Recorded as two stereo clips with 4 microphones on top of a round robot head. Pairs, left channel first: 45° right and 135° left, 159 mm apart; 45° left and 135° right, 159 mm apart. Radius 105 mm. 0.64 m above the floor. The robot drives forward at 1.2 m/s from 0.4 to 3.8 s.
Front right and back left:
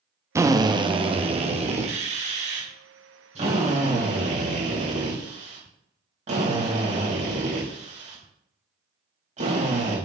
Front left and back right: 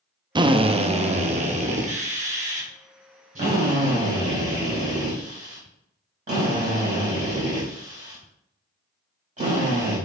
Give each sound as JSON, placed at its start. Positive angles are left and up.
{"t": 0.3, "sound": "a drill", "azimuth_deg": -170, "distance_m": 1.0}